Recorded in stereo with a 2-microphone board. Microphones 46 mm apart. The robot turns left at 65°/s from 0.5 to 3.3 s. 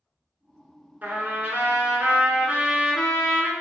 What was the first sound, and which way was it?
A trumpet, 50° right.